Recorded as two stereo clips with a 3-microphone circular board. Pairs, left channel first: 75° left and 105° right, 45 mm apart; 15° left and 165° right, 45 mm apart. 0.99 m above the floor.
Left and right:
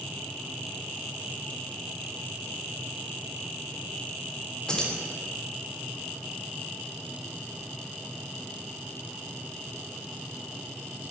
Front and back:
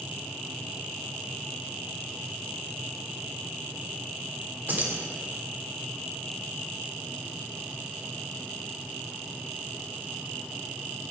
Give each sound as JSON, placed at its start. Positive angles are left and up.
{"t": 4.7, "sound": "keys jangling", "azimuth_deg": 150, "distance_m": 2.5}